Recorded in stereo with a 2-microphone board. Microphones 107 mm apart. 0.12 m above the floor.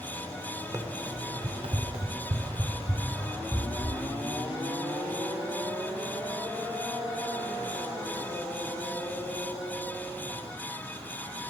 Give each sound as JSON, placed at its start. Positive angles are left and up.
{"t": 0.7, "sound": "running footsteps", "side_deg": -30, "distance_m": 2.0}